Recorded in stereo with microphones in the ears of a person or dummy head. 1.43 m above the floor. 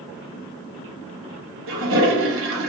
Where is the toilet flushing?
65° right (ahead or behind), 0.8 m.